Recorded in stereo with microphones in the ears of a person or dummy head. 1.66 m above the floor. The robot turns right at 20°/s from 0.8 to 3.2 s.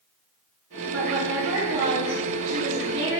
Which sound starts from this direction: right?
A woman speaking, at 0.9 s.